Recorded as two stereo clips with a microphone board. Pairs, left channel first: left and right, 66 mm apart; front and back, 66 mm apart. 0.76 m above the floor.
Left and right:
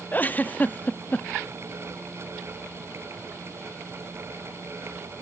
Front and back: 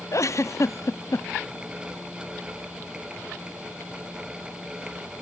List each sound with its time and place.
0.1 s a giggle: 30° left, 0.5 m